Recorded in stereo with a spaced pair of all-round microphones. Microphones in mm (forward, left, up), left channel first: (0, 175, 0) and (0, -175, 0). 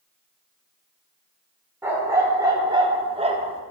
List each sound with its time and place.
1.8 s a dog barking: 5° right (ahead or behind), 1.0 m; by 3.6 s 15° right (ahead or behind), 0.6 m